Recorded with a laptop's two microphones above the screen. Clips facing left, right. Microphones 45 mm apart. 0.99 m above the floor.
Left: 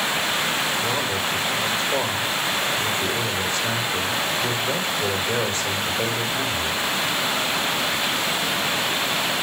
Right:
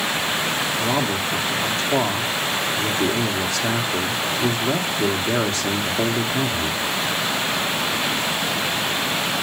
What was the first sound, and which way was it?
A man speaking, 80° right.